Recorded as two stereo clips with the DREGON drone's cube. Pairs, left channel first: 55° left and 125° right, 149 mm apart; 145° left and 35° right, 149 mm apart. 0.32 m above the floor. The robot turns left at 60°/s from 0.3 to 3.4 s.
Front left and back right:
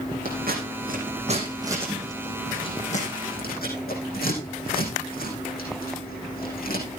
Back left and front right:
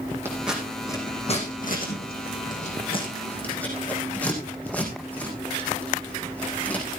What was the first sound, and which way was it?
Scissors, 110° right.